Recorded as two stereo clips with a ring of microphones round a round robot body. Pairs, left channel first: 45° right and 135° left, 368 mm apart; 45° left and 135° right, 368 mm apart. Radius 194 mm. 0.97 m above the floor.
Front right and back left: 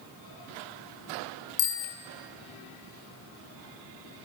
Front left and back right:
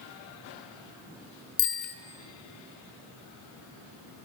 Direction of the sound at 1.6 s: 5° left.